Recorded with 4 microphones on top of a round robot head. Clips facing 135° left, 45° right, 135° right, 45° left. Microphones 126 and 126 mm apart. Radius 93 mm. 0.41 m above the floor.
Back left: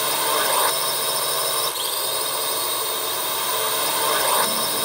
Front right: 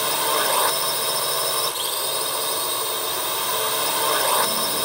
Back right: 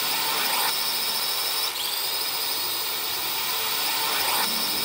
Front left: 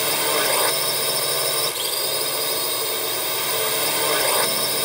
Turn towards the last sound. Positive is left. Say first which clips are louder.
# even, front left 7 dB
turn(degrees=45)